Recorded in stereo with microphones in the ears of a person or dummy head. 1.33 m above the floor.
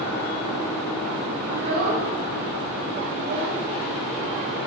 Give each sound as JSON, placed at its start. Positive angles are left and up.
{"t": 1.5, "sound": "a child speaking", "side_deg": -65, "distance_m": 1.9}